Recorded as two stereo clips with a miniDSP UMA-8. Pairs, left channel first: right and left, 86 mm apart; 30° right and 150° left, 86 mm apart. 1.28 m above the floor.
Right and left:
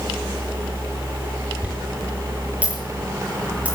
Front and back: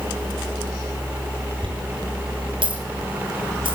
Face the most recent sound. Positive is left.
turn(degrees=165)